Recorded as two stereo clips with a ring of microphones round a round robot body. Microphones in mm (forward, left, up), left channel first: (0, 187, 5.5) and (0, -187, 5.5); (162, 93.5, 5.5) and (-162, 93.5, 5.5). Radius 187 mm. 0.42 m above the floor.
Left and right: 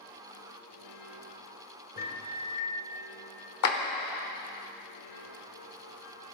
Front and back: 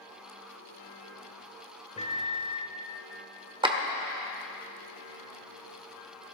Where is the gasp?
I don't hear a gasp.